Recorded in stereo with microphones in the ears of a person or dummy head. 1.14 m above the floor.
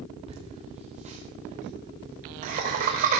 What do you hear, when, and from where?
0.3 s laughter: 30° right (ahead or behind), 4 m; by 3.2 s 45° right (ahead or behind), 5 m